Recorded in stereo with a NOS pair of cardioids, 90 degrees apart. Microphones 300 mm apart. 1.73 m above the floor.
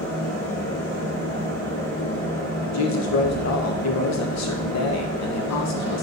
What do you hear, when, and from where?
0.0 s a fan: 10° left, 4.5 m
2.6 s a woman speaking: 65° left, 2 m